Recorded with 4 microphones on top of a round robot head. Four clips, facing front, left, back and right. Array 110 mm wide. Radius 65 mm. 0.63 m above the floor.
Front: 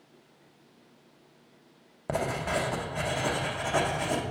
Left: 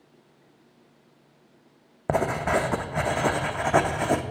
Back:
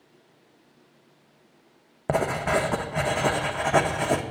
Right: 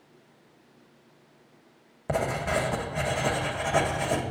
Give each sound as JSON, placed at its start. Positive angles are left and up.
{"t": 2.1, "sound": "writing", "azimuth_deg": 125, "distance_m": 0.8}